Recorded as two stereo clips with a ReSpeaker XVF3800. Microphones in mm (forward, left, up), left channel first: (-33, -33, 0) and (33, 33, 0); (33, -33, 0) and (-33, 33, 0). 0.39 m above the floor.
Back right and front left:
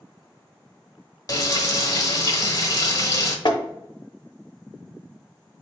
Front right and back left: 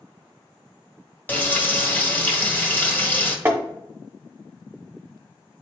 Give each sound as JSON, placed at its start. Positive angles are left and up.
{"t": 1.3, "sound": "frying", "azimuth_deg": -105, "distance_m": 1.0}
{"t": 3.5, "sound": "tapping", "azimuth_deg": -160, "distance_m": 0.7}